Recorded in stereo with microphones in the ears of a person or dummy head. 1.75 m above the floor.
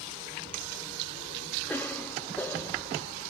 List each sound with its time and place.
1.7 s a cough: 5° left (ahead or behind), 0.9 m